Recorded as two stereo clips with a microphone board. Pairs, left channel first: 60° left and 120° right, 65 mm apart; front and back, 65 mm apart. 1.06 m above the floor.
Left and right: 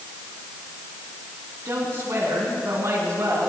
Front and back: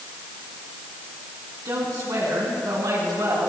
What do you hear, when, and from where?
1.6 s a woman speaking: 175° right, 9 m; by 3.5 s 165° right, 10 m